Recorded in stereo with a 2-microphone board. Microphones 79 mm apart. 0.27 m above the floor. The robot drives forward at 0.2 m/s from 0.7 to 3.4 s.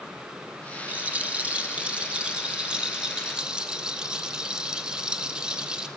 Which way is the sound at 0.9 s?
20° right (ahead or behind).